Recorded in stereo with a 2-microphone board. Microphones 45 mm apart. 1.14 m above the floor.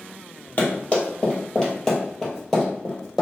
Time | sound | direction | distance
0.6 | running footsteps | 35° left (ahead or behind) | 1.8 m